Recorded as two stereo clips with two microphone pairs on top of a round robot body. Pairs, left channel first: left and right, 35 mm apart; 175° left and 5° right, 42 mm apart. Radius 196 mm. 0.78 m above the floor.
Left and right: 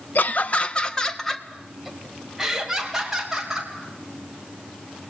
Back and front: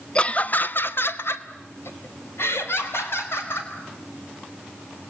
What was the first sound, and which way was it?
Laughter, 115° left.